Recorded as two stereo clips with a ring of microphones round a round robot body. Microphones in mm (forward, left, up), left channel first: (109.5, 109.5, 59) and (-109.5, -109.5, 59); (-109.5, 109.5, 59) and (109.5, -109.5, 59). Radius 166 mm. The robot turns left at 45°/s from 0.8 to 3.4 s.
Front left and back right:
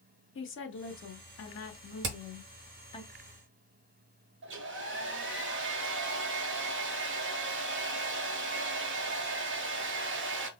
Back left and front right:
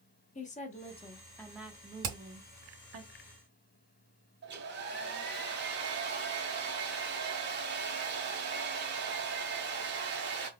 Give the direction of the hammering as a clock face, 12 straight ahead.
3 o'clock.